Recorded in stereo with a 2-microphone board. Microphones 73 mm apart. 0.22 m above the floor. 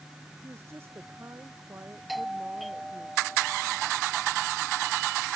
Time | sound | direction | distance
0.4 | a woman speaking | 35° right (ahead or behind) | ?
2.1 | a doorbell | centre (ahead or behind) | ?